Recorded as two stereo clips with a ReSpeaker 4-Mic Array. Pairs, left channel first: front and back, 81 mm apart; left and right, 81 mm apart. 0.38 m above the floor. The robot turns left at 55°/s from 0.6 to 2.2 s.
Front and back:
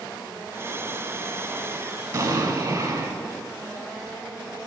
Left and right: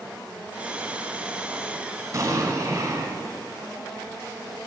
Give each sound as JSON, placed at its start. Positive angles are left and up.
{"t": 2.1, "sound": "an explosion", "azimuth_deg": -140, "distance_m": 1.2}